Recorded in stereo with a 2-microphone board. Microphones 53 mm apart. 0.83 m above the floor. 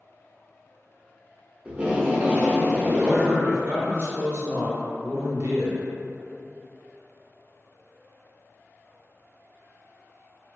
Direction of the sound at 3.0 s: 50° right (ahead or behind).